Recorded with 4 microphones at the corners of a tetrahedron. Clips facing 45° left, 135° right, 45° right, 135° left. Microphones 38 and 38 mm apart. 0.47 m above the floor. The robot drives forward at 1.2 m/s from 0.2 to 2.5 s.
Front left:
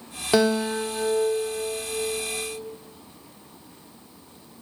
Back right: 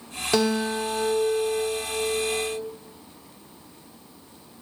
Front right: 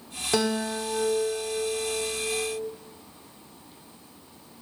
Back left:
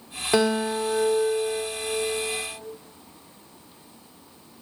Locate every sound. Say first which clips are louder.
0.3 s a guitar: front left 2 dB, back left 4 dB; 100° left, 1.3 m; by 2.6 s 165° left, 3 m